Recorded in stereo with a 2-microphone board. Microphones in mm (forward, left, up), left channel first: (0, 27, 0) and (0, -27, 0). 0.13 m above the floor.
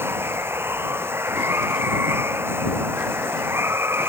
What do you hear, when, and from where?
0.0 s running water: 45° right (ahead or behind)